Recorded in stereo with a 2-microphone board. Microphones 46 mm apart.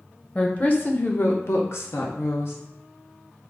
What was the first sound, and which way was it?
A woman speaking, 25° left (ahead or behind).